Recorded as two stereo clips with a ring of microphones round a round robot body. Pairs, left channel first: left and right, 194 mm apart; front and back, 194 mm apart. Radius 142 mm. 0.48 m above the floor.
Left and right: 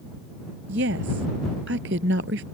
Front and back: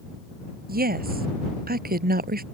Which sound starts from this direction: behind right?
A woman speaking, at 0.7 s.